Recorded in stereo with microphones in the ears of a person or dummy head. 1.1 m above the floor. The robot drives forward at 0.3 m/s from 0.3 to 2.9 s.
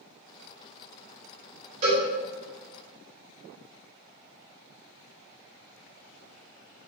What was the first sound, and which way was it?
A cowbell, 85° right.